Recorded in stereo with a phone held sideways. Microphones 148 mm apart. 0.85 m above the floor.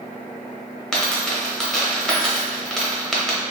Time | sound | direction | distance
0.9 | a dropped coin | 5° left (ahead or behind) | 0.8 m